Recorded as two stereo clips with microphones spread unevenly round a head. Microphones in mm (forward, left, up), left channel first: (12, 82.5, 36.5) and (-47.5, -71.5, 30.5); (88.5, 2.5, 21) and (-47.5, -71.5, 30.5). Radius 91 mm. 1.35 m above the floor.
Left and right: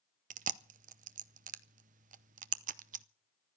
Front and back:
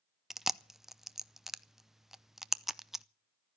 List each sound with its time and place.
0.3 s chewing: 65° right, 0.6 m